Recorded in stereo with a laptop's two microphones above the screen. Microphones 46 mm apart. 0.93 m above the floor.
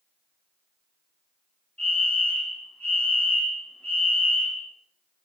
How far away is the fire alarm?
About 3.5 m.